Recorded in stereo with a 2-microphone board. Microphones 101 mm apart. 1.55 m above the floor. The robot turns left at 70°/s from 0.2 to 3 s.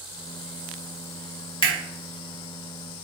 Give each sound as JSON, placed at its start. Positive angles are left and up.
{"t": 1.6, "sound": "a camera shutter", "side_deg": 55, "distance_m": 1.0}